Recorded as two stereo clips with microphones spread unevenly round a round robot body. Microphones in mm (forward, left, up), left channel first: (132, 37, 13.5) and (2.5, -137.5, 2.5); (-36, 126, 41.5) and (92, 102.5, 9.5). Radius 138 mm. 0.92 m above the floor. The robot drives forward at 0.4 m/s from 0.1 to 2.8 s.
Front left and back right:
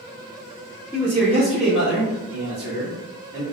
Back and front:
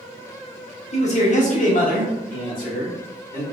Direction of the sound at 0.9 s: 135° left.